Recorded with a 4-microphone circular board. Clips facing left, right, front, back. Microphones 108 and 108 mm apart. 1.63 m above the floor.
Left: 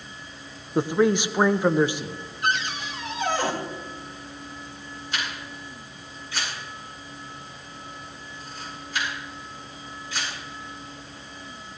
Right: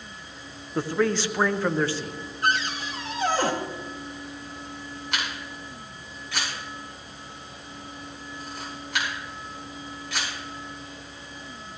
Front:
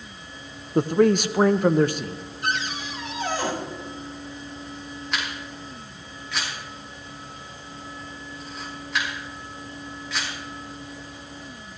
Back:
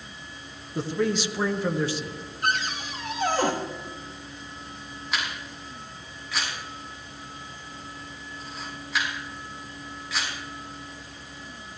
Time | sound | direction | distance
0.8 | a man speaking | 20° left | 0.7 m
2.4 | a cupboard door | 145° right | 3 m
5.1 | a camera shutter | 90° right | 6.5 m